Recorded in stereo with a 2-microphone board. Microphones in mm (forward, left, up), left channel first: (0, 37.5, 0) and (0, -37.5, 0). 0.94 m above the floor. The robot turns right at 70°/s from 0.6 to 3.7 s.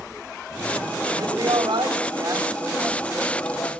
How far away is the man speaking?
About 5.5 m.